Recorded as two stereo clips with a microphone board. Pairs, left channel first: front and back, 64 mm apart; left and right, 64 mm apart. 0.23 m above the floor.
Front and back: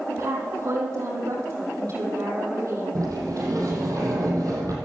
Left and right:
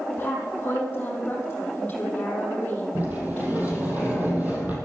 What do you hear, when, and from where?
0.1 s a woman speaking: 155° left, 6.5 m
3.0 s a sliding door: 155° right, 5 m